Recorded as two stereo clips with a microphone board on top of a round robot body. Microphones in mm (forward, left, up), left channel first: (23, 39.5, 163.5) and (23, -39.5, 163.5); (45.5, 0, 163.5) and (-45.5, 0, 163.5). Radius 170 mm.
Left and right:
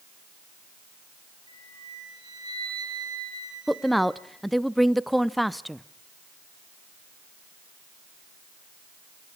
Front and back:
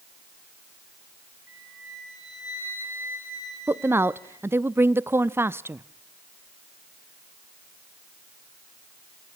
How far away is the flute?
About 7 m.